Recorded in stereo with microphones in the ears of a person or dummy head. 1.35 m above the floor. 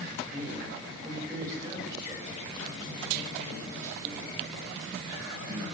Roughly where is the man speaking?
Centre.